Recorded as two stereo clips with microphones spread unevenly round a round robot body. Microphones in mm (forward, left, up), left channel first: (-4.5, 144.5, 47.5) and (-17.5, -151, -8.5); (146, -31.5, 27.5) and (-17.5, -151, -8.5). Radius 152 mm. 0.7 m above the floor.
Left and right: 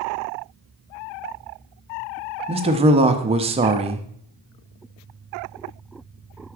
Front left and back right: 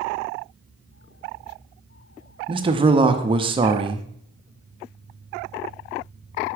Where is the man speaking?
130° right, 0.6 m.